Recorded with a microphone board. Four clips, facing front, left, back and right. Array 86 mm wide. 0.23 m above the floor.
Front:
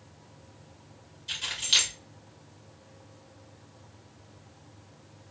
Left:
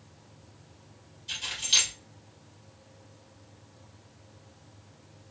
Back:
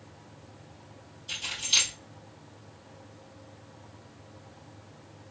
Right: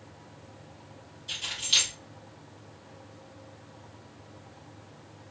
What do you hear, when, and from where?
1.3 s keys jangling: straight ahead, 2.5 m